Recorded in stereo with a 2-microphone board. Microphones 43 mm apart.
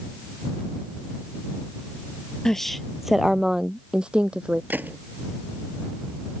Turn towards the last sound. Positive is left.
turn(degrees=-50)  # may be behind; listen again after turning